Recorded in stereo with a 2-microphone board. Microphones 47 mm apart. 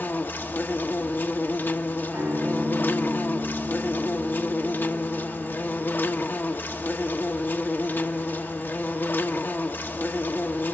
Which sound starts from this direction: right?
A guitar, at 2.1 s.